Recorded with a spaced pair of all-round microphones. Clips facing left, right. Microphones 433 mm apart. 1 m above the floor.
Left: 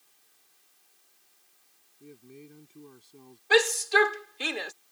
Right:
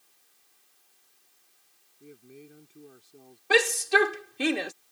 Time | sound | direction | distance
2.0 | a man speaking | 10° left (ahead or behind) | ?
3.5 | a shout | 65° right (ahead or behind) | ?